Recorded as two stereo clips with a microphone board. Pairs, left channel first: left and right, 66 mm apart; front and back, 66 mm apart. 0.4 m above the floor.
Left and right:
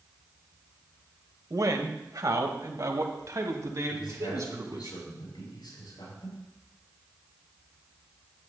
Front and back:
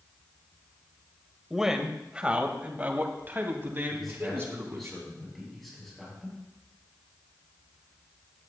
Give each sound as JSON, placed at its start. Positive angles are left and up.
{"t": 1.5, "sound": "a man speaking", "azimuth_deg": -95, "distance_m": 1.3}
{"t": 3.9, "sound": "a man speaking", "azimuth_deg": 90, "distance_m": 7.0}